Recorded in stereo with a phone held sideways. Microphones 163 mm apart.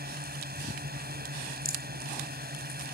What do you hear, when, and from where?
0.0 s a drone: 75° right (ahead or behind)
1.6 s a rattle: 85° right